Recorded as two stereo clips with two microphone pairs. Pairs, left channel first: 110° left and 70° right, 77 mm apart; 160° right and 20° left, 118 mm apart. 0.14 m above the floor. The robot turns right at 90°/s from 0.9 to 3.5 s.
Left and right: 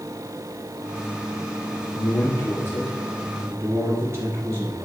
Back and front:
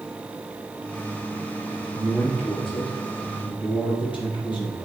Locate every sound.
1.9 s a man speaking: 100° left, 3 m; by 4.8 s 120° right, 3 m